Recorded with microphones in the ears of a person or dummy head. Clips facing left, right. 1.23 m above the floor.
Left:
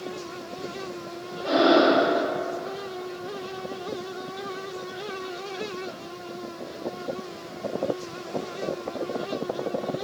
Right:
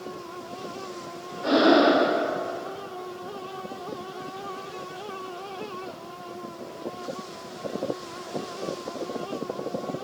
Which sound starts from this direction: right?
Breathing, at 1.4 s.